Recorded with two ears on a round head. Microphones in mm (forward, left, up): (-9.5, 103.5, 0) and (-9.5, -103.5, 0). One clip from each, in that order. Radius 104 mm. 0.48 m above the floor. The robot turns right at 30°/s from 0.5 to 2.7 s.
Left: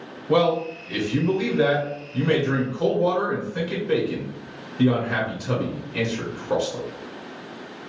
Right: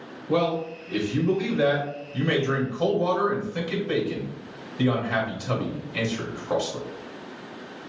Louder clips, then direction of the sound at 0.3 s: Left 4 dB; 25° left (ahead or behind).